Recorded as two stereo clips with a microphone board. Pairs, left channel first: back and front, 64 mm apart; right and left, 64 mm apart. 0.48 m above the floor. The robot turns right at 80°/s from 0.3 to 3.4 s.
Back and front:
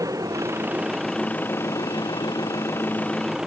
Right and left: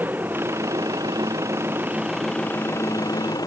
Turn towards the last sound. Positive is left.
turn(degrees=-85)